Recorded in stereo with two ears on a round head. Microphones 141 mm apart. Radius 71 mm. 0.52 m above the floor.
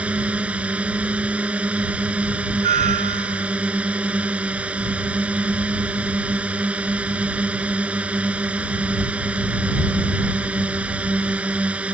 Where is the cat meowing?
50° right (ahead or behind).